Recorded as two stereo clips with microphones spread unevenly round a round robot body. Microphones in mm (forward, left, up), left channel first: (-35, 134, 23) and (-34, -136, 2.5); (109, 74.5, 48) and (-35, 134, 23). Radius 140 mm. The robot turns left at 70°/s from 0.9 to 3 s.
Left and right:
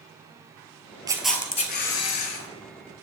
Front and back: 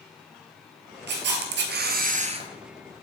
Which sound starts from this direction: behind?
A camera shutter, at 1.1 s.